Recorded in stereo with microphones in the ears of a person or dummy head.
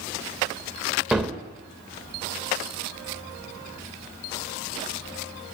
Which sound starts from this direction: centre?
A gunshot, at 1.1 s.